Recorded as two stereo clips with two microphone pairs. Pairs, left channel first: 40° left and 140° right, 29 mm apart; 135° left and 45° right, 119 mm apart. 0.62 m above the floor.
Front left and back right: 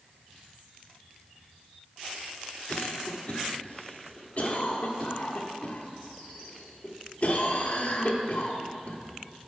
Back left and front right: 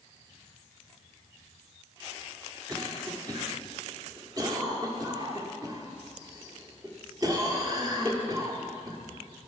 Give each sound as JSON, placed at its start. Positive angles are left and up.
{"t": 2.7, "sound": "a cough", "azimuth_deg": 10, "distance_m": 1.2}